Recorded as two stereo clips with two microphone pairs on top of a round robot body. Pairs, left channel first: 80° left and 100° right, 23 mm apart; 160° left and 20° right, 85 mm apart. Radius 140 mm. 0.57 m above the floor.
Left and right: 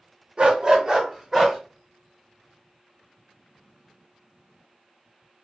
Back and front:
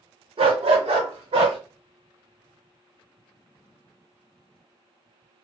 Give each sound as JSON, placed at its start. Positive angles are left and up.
{"t": 0.4, "sound": "a dog barking", "azimuth_deg": -40, "distance_m": 0.7}